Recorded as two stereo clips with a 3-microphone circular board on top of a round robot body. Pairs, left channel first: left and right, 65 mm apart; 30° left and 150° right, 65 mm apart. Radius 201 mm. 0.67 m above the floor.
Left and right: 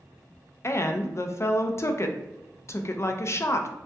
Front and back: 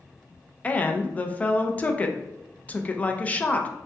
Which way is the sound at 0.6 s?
85° left.